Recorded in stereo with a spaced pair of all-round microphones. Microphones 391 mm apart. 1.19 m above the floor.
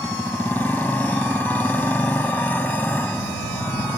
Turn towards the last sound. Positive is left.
turn(degrees=5)  # may be behind; listen again after turning